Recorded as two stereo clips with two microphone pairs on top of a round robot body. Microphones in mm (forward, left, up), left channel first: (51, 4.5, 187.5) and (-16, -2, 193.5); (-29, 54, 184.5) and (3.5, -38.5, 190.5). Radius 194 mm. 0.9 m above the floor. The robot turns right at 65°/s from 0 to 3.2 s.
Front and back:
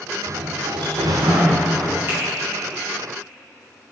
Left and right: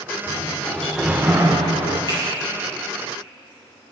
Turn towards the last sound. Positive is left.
turn(degrees=-45)